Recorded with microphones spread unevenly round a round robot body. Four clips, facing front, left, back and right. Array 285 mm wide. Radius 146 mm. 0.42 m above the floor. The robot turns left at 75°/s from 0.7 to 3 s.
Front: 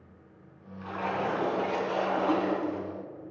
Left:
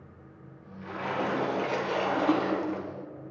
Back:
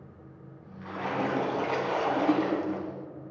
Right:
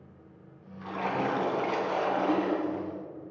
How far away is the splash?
About 2.5 m.